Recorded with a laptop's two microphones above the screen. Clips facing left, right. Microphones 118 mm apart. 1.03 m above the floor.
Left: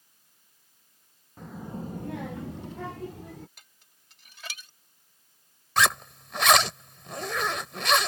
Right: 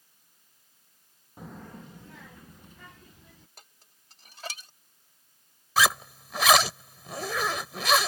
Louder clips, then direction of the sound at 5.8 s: Even; 5° right (ahead or behind).